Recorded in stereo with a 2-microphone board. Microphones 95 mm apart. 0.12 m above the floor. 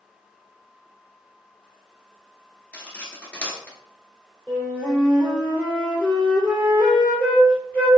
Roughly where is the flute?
Centre.